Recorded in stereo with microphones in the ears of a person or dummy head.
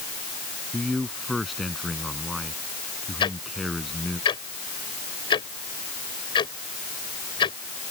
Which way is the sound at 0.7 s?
Centre (ahead or behind).